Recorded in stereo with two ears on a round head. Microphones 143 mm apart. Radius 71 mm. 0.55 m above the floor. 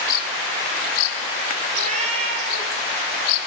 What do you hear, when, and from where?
1.7 s a cat meowing: 45° right (ahead or behind), 5.5 m; by 2.7 s 35° right (ahead or behind), 6 m